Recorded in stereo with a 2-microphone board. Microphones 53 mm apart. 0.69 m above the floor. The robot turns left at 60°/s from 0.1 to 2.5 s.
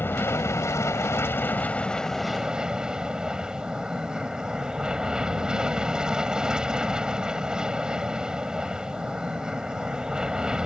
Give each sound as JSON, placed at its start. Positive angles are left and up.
{"t": 0.0, "sound": "an aircraft", "azimuth_deg": 130}